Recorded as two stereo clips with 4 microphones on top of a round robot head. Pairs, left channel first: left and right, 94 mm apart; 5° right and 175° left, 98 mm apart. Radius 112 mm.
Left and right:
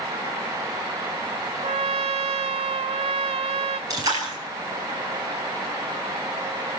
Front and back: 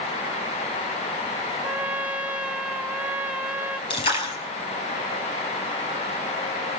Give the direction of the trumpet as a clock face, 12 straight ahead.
3 o'clock.